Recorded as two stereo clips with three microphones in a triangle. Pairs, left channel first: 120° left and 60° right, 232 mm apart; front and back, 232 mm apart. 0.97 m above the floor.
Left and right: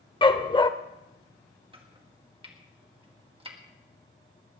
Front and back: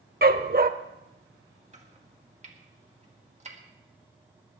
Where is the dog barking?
Straight behind, 0.8 m.